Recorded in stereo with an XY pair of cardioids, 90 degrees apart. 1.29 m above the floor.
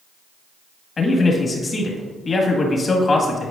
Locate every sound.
1.0 s a man speaking: 40° left, 1.8 m